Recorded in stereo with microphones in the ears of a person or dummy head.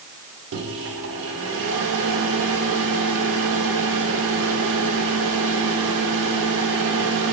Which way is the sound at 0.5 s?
75° right (ahead or behind).